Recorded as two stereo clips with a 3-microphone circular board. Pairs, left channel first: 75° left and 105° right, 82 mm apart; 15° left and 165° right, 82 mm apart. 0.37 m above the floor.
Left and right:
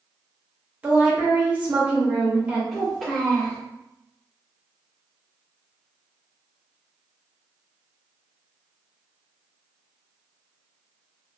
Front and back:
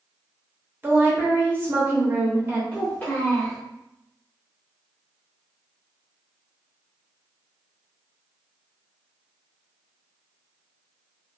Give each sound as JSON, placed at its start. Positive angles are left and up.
{"t": 0.8, "sound": "a woman speaking", "azimuth_deg": -150, "distance_m": 0.9}
{"t": 2.7, "sound": "a child speaking", "azimuth_deg": -10, "distance_m": 0.9}